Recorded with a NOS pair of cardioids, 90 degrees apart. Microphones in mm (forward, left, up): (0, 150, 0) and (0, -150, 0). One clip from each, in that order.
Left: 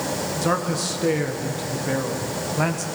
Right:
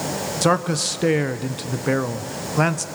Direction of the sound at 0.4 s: 50° right.